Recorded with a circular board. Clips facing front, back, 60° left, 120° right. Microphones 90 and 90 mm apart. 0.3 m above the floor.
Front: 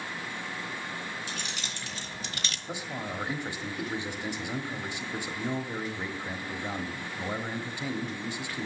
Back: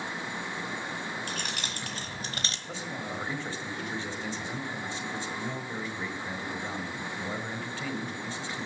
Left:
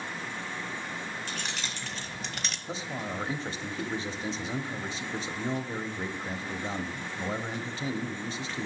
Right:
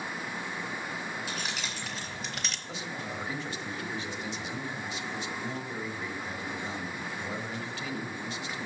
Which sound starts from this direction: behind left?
Keys jangling, at 1.3 s.